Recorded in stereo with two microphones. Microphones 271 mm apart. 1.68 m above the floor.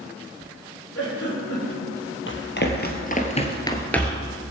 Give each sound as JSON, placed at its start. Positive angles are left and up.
{"t": 0.9, "sound": "a giggle", "side_deg": 60, "distance_m": 4.5}
{"t": 2.3, "sound": "running footsteps", "side_deg": 45, "distance_m": 2.5}